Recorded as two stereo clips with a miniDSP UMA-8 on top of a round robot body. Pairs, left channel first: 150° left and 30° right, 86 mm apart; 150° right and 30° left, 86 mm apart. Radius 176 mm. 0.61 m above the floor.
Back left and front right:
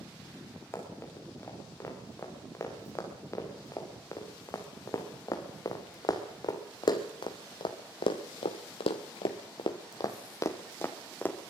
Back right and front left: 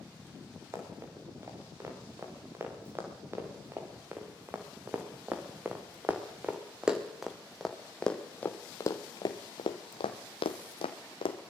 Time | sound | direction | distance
0.7 | running footsteps | 90° left | 6.5 m